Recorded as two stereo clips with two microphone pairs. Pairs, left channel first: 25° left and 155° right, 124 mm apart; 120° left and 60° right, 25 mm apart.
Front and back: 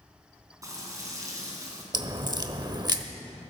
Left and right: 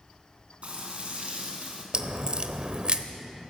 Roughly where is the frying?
Right.